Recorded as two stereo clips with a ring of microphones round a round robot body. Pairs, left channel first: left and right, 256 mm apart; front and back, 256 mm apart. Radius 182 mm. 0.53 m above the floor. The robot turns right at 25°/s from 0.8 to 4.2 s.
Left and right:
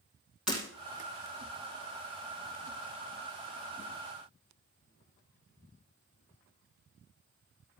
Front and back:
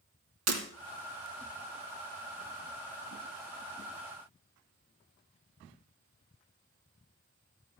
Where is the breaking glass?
Straight behind, 3 m.